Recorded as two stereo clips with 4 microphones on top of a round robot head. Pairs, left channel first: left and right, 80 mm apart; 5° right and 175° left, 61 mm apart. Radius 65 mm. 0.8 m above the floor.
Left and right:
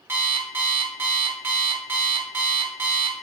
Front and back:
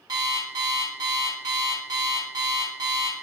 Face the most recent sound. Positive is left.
turn(degrees=-155)